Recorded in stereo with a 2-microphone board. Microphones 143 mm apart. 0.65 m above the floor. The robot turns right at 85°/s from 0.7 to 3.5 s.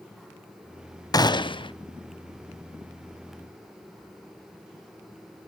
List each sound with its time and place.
1.1 s a gunshot: 50° left, 0.5 m; by 1.7 s 100° left, 0.5 m